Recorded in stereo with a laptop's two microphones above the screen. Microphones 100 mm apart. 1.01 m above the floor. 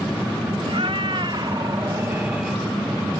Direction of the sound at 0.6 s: 65° right (ahead or behind).